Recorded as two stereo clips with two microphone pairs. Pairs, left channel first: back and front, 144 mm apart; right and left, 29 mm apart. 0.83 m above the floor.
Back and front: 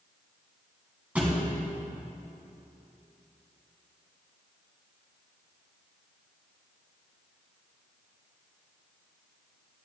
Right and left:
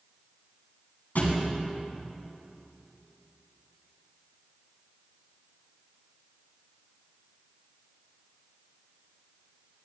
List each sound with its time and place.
1.1 s a thud: 80° right, 3 m